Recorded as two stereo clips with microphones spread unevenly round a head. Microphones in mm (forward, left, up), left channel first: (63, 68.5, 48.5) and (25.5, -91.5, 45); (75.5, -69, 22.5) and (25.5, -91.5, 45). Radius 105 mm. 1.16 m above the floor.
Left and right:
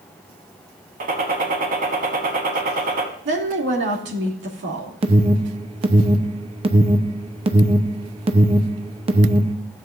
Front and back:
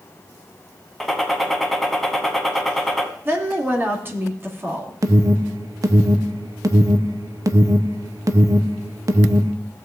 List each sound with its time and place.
1.0 s a gunshot: 85° right, 1.4 m
3.2 s a woman speaking: 100° right, 2.5 m
5.0 s an alarm: 135° right, 0.8 m